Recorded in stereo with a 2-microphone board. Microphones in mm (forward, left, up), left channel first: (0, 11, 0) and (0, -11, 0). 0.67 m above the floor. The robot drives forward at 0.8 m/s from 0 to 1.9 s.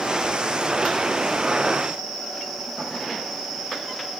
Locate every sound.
Only background noise.